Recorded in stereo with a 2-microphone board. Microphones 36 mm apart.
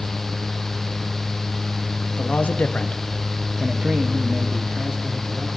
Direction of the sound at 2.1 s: 50° left (ahead or behind).